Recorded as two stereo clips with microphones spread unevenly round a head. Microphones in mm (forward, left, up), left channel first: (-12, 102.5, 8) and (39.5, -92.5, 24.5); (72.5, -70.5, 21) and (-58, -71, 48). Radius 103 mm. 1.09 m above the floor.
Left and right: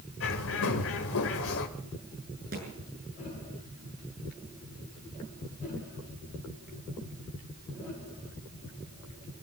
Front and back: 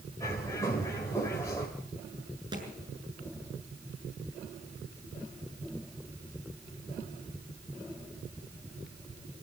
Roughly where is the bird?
Left.